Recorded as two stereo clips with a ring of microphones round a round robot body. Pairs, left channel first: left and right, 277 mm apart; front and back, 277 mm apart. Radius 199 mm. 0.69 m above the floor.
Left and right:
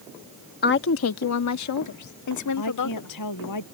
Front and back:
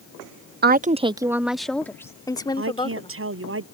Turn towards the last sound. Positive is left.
turn(degrees=135)